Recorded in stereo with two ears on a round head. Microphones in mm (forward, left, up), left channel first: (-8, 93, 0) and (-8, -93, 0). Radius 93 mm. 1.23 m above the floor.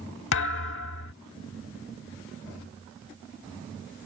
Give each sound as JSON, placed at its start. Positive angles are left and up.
{"t": 0.3, "sound": "a thud", "side_deg": 60}